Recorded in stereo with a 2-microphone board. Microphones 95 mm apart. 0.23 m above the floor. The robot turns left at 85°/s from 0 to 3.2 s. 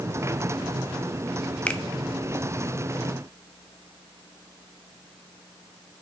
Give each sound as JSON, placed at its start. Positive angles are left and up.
{"t": 1.7, "sound": "a finger snap", "side_deg": 15, "distance_m": 0.8}